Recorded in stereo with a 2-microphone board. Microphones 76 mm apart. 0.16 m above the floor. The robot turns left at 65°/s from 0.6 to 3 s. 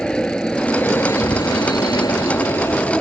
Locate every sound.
0.0 s an aircraft: 10° left (ahead or behind)